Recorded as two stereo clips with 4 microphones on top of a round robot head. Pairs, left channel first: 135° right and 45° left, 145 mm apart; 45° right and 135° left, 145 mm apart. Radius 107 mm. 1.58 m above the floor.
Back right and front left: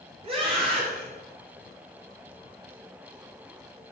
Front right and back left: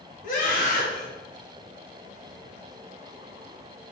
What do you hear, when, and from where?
0.2 s a scream: 10° right, 3 m